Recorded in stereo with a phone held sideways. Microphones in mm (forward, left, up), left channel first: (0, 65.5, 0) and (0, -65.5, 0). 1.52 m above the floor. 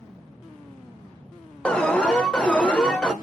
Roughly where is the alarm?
Centre.